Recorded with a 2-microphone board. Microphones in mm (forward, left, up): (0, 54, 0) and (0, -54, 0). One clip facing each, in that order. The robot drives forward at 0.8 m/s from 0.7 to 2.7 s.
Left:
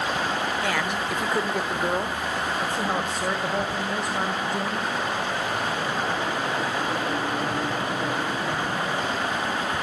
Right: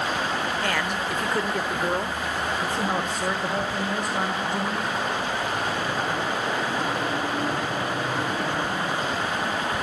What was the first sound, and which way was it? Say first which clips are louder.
A man speaking: even; 5° left (ahead or behind).